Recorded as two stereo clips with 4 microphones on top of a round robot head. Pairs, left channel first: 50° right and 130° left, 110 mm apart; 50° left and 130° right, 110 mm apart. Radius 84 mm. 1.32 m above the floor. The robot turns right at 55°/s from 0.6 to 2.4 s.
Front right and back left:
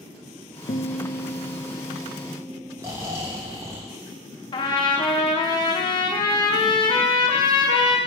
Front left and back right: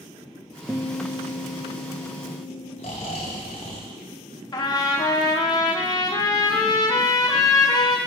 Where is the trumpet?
5° right, 0.7 m.